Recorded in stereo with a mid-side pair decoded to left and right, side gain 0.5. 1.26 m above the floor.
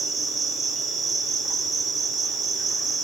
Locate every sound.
0.0 s an insect: 55° right, 1.9 m